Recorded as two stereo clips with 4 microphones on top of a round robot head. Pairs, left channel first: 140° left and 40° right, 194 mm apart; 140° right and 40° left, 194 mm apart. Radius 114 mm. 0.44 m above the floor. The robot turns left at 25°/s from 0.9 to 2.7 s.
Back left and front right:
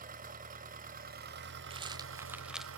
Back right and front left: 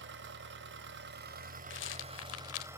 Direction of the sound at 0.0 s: 10° left.